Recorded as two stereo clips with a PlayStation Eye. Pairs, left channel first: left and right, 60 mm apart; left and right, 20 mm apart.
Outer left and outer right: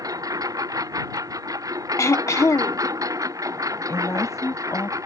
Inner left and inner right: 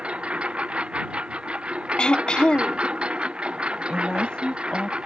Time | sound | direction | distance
0.0 | a lawn mower | 75° right (ahead or behind) | ?
2.0 | throat clearing | 60° left (ahead or behind) | ?
3.9 | a woman speaking | 60° left (ahead or behind) | ?